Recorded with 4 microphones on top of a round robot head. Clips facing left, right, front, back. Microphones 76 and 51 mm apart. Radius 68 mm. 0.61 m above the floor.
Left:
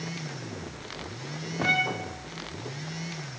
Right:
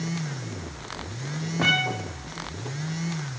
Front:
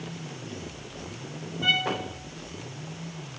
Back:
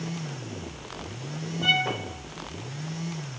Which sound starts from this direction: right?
A violin, at 1.6 s.